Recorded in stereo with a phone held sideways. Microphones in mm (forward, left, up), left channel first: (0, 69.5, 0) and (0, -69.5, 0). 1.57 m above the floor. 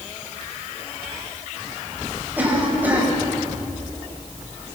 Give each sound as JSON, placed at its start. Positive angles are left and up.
{"t": 2.4, "sound": "a cough", "side_deg": -10, "distance_m": 8.0}